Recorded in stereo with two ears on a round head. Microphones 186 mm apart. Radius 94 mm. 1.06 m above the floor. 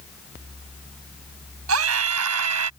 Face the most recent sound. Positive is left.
turn(degrees=-80)